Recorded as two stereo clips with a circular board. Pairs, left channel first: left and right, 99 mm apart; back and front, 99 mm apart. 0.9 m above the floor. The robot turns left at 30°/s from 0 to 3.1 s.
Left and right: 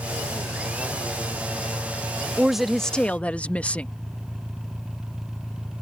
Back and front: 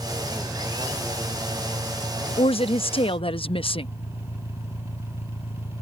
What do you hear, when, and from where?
0.0 s an engine running: 90° right; by 5.8 s 175° left
2.4 s a woman speaking: 170° right; by 3.9 s 165° left